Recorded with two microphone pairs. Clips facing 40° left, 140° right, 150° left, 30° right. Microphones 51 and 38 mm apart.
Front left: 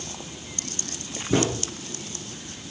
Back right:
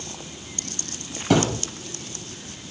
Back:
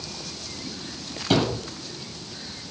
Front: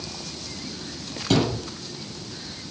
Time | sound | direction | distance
1.3 | a thud | 120° right | 6 m